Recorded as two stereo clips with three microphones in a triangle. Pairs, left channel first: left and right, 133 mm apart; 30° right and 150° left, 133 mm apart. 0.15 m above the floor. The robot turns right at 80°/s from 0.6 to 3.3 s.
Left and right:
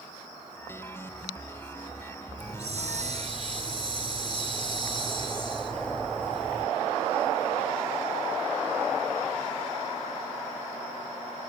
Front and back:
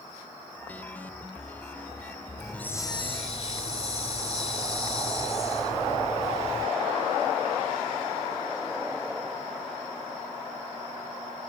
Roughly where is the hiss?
Behind right.